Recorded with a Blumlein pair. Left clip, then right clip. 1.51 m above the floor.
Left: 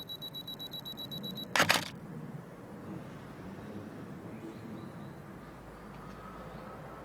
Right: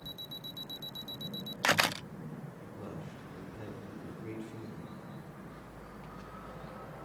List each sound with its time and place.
2.6 s a man speaking: 30° right, 5 m